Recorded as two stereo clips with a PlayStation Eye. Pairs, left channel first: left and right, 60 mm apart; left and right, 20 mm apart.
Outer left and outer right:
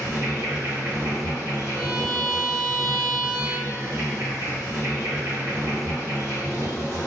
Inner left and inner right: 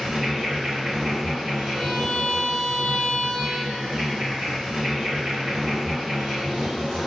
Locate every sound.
0.0 s an insect: 45° right (ahead or behind), 1.5 m
1.8 s a violin: centre (ahead or behind), 0.6 m